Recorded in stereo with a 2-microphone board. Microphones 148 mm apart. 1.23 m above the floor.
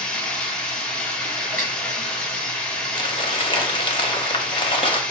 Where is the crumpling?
35° left (ahead or behind), 0.8 m.